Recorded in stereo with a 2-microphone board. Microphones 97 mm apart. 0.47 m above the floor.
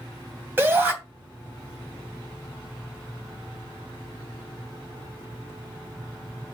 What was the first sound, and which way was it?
A shout, 20° right (ahead or behind).